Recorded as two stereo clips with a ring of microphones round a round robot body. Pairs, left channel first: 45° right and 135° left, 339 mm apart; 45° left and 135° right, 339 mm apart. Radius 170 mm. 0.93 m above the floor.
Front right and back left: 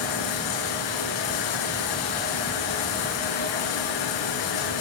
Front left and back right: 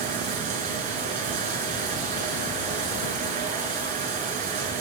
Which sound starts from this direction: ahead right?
Running water, at 0.0 s.